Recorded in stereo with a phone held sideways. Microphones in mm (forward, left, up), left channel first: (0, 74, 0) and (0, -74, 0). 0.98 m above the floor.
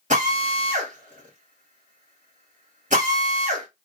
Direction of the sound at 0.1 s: 60° right (ahead or behind).